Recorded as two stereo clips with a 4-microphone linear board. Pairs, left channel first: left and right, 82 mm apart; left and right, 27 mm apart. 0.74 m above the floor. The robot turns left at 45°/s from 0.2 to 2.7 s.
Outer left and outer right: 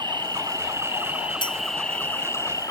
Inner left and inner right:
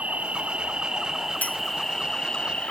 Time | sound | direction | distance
0.0 | an insect | 115° right | ?
1.4 | a clink | 75° left (ahead or behind) | ?